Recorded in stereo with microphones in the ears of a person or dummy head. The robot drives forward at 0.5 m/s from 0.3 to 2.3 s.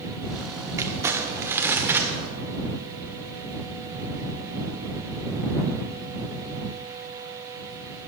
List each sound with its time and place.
0.8 s crumpling: 15° right (ahead or behind), 1.1 m; by 2.1 s 10° right (ahead or behind), 1.7 m